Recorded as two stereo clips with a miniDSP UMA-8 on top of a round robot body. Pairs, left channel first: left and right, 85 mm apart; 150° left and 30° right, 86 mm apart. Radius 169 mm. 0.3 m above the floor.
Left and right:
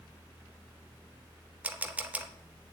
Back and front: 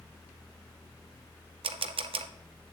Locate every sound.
1.6 s a camera shutter: 15° right, 0.6 m